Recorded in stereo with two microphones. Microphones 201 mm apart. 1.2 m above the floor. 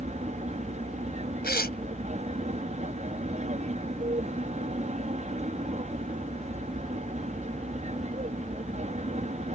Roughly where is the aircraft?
Right.